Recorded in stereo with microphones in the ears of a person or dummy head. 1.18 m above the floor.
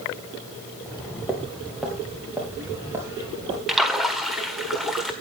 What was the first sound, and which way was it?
Footsteps, 15° left (ahead or behind).